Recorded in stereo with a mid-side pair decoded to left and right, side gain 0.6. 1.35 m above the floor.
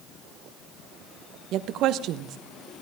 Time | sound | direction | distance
1.5 | a woman speaking | 60° right | 0.8 m